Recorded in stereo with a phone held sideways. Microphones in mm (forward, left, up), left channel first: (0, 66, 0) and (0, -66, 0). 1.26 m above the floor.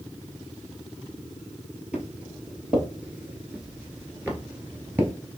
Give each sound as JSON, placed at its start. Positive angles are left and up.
{"t": 1.9, "sound": "footsteps", "side_deg": -10, "distance_m": 1.8}